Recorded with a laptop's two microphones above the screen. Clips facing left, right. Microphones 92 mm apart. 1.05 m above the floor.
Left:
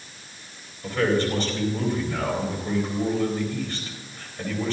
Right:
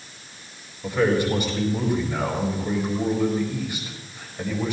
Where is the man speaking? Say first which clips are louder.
Right 2 dB; 15° right (ahead or behind), 4 m.